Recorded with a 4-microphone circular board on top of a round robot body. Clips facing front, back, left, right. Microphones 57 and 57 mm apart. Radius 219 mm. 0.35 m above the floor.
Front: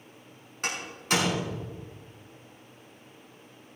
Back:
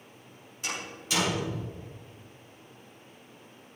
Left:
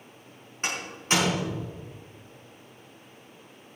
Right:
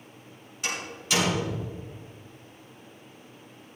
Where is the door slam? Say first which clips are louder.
Front 4 dB, left 2 dB; 35° left, 5.5 m.